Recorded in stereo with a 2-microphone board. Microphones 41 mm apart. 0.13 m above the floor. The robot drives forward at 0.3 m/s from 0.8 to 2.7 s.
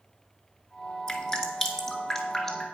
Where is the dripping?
15° left (ahead or behind), 1.4 m.